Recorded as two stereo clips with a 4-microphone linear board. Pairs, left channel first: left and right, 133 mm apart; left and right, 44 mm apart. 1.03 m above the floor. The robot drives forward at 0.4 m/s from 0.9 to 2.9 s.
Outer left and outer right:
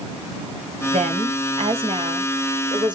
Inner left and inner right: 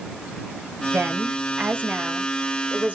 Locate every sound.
0.9 s a woman speaking: 65° right (ahead or behind), 1.0 m; by 3.0 s 35° right (ahead or behind), 1.4 m